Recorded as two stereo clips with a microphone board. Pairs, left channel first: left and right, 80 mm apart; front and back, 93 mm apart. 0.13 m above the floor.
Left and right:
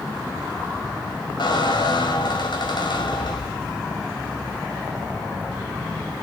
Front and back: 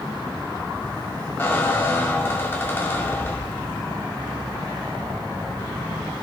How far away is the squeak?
About 5 m.